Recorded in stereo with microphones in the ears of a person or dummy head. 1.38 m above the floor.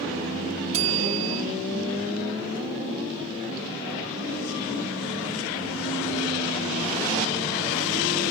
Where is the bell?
40° right (ahead or behind), 1.2 m.